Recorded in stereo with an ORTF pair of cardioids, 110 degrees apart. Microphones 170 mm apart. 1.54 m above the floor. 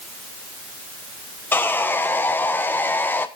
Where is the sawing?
10° left, 1.0 m.